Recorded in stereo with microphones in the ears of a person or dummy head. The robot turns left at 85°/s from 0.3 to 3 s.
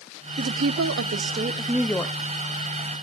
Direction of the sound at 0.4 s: 55° right.